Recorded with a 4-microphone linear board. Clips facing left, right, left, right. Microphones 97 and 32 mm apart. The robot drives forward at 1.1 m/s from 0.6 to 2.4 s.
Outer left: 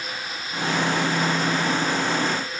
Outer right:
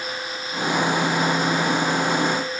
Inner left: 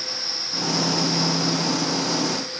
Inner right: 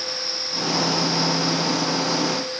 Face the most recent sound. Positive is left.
No sound to turn to.